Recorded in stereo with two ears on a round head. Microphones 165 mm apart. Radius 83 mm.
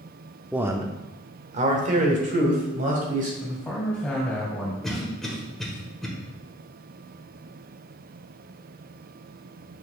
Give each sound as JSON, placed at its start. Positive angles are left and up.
{"t": 0.5, "sound": "a man speaking", "side_deg": -5, "distance_m": 0.7}
{"t": 3.4, "sound": "a man speaking", "side_deg": 5, "distance_m": 2.0}
{"t": 4.8, "sound": "a cough", "side_deg": 0, "distance_m": 1.4}